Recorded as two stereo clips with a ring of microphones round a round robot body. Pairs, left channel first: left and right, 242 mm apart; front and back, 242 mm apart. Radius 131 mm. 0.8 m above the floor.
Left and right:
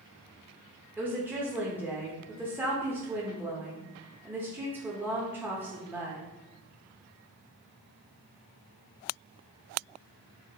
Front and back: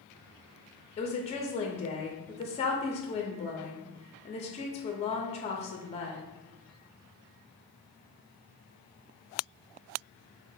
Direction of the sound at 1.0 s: 20° right.